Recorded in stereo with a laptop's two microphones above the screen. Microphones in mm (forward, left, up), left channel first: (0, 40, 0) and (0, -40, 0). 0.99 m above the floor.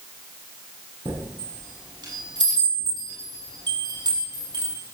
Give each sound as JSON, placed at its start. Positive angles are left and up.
{"t": 1.1, "sound": "a chime", "side_deg": -70, "distance_m": 7.5}